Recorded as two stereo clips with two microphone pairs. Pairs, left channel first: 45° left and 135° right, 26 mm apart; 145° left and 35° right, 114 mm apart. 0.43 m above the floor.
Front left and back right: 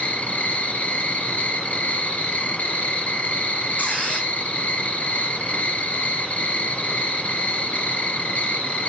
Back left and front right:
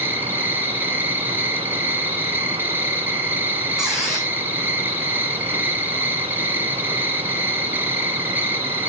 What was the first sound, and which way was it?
An insect, 40° left.